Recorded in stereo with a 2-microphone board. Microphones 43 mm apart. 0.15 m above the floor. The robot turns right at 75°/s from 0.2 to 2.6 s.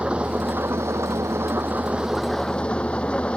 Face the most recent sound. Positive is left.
turn(degrees=25)